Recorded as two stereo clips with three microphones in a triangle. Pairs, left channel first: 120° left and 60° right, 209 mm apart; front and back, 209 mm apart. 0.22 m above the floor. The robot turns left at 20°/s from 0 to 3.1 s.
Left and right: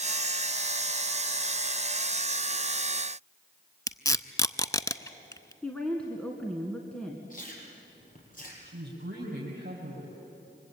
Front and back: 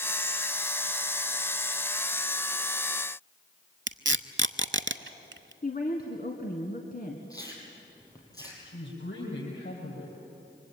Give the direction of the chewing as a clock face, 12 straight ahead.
10 o'clock.